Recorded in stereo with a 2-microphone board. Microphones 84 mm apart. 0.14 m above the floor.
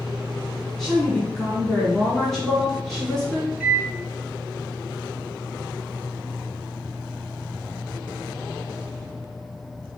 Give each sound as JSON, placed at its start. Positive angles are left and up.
{"t": 0.8, "sound": "a woman speaking", "side_deg": 5, "distance_m": 1.0}
{"t": 3.6, "sound": "a microwave", "side_deg": -15, "distance_m": 0.9}